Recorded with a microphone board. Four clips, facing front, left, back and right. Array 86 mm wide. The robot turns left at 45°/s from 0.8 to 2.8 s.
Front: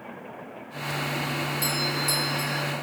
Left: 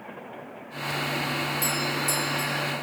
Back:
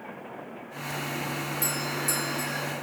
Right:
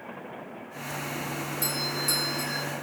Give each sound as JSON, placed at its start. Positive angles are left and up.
{"t": 1.6, "sound": "a doorbell", "azimuth_deg": 0, "distance_m": 1.7}